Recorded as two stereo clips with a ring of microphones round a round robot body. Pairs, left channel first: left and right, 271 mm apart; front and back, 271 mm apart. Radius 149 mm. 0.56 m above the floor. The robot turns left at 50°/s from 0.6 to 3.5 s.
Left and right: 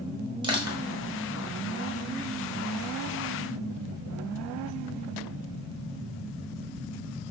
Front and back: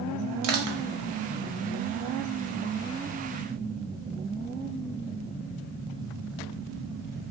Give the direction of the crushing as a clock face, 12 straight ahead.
5 o'clock.